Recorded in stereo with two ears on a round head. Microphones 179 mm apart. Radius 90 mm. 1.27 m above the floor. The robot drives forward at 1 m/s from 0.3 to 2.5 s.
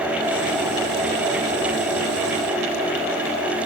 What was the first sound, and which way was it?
Only background noise.